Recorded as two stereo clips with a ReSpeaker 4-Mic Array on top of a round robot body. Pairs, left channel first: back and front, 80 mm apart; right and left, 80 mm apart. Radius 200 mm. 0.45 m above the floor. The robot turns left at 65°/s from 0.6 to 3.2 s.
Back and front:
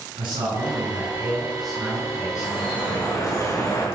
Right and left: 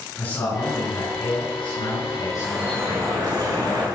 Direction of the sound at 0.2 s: 20° right.